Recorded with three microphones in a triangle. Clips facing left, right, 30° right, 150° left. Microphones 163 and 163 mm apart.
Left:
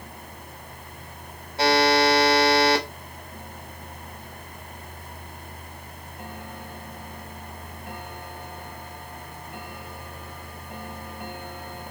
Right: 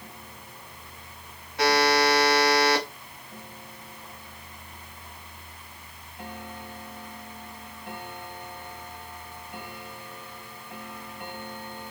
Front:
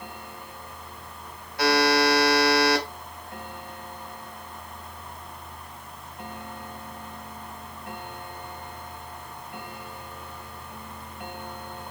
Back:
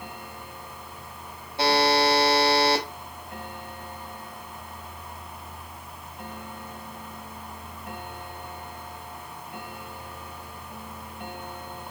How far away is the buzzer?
About 0.7 m.